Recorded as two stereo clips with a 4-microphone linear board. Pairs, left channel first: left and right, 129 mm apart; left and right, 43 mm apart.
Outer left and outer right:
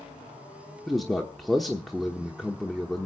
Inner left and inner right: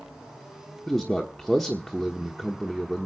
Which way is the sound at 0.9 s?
Centre (ahead or behind).